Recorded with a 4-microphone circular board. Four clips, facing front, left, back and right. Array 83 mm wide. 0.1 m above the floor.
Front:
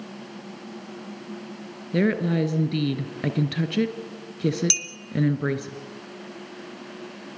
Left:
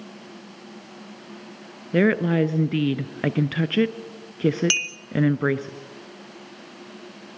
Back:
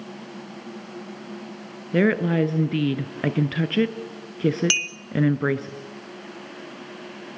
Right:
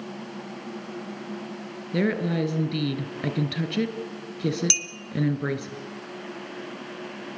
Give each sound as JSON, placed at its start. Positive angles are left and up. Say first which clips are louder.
{"t": 1.9, "sound": "a woman speaking", "louder": "left 5 dB, back 2 dB", "azimuth_deg": 120, "distance_m": 1.2}
{"t": 4.7, "sound": "a clink", "louder": "left 5 dB, back 7 dB", "azimuth_deg": 140, "distance_m": 1.1}